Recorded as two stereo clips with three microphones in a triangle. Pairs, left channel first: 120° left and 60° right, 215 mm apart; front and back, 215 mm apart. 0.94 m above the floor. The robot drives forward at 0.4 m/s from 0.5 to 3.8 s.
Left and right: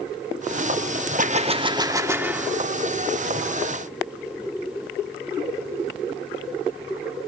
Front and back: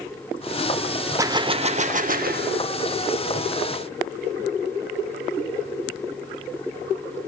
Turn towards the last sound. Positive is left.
turn(degrees=-160)